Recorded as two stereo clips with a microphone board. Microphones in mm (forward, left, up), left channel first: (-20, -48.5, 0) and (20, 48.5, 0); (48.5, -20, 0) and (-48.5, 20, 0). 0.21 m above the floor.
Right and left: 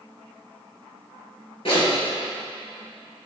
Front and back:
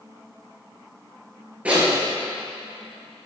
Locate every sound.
1.6 s a zipper: 125° right, 2.5 m